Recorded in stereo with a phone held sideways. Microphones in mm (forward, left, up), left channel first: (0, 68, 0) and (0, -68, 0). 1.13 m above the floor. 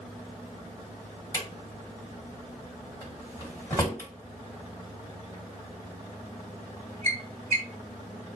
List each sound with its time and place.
1.3 s a drawer: 15° left (ahead or behind), 1.7 m